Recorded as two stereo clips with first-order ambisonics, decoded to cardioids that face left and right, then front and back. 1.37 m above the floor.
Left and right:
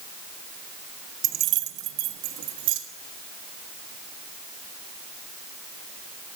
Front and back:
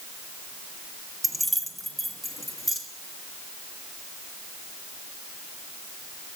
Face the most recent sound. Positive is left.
turn(degrees=-95)